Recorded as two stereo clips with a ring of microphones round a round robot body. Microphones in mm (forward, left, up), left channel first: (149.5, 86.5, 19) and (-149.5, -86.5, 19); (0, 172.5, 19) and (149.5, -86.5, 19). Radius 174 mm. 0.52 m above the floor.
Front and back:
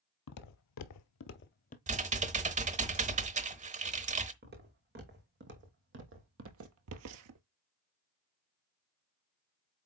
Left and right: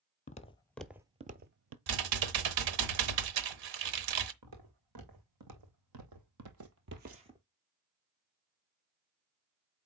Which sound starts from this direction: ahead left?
Footsteps, at 0.3 s.